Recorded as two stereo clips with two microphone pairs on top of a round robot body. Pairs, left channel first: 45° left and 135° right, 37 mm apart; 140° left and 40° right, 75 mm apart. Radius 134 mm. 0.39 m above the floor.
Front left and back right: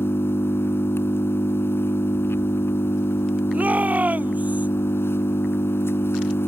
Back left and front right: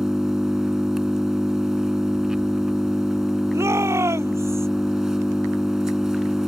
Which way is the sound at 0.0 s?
45° left.